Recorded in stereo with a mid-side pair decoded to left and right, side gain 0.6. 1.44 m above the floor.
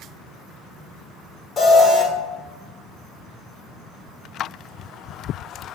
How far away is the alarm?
About 1.0 m.